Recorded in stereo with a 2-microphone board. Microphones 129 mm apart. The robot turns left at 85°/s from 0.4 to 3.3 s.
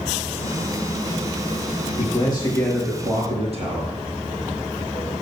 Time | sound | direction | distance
2.0 | a man speaking | 60° left | 5 m